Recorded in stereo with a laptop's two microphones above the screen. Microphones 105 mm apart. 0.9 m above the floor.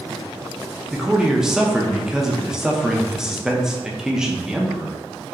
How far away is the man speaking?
About 0.5 m.